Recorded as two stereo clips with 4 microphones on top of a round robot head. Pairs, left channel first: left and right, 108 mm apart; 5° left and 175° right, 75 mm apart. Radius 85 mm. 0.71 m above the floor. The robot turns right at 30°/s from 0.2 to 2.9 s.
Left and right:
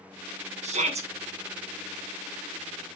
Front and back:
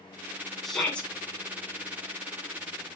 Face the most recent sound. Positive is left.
turn(degrees=-15)